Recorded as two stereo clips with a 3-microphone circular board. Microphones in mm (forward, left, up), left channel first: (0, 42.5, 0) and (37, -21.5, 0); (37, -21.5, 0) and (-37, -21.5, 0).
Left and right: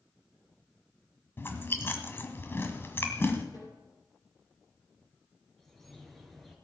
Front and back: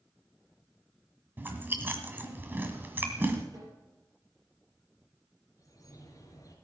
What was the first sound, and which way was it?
Chewing, 145° left.